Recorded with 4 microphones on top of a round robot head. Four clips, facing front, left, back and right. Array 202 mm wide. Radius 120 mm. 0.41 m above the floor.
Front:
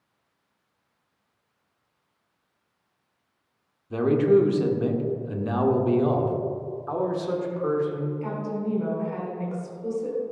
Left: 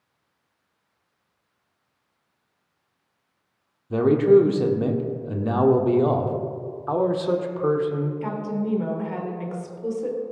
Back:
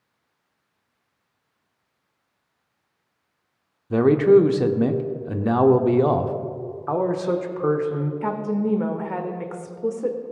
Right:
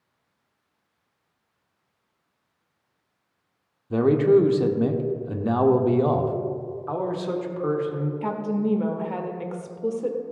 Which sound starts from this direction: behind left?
A man speaking, at 6.9 s.